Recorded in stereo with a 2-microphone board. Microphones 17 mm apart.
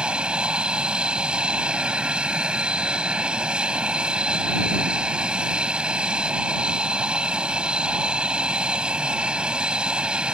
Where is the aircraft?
65° right (ahead or behind).